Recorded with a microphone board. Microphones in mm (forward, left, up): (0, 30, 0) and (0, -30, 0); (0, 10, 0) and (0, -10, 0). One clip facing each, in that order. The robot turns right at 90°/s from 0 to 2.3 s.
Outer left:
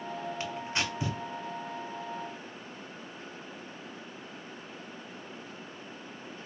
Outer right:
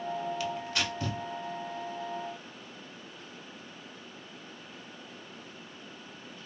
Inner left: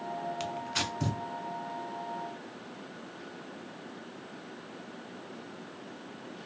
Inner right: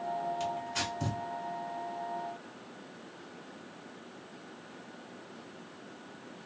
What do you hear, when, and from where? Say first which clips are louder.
0.4 s tearing paper: outer right 1 dB, inner left 1 dB; 35° left (ahead or behind), 0.7 m; by 1.2 s 10° left (ahead or behind), 0.7 m